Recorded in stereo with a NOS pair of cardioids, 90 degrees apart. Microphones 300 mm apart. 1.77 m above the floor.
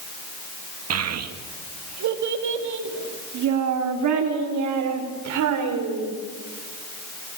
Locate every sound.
0.9 s a child speaking: 55° right, 2 m; by 6.1 s 80° right, 5.5 m